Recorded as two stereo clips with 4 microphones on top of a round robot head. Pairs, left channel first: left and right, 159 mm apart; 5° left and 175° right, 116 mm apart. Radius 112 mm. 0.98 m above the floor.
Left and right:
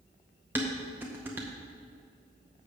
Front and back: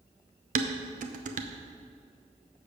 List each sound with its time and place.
0.6 s dishes clattering: 170° right, 0.5 m